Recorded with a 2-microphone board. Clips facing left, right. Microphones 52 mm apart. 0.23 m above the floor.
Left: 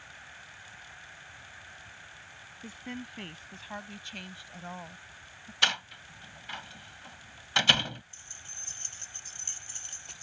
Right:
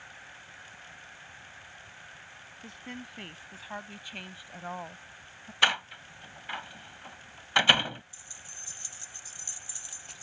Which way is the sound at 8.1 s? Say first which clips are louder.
Even; 50° left (ahead or behind).